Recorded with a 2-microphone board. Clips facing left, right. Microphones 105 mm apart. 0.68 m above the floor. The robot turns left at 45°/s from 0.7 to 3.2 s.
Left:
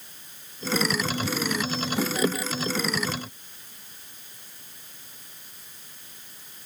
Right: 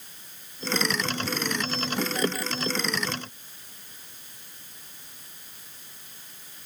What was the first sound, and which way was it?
Only background noise.